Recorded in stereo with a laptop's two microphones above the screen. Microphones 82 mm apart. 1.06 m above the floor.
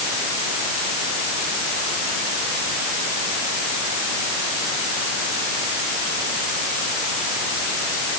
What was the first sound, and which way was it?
Only background noise.